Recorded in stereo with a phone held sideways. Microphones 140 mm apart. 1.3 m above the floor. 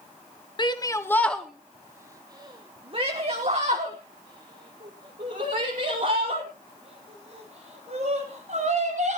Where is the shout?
35° left (ahead or behind), 0.8 m; by 9.2 s 70° right (ahead or behind), 4.5 m.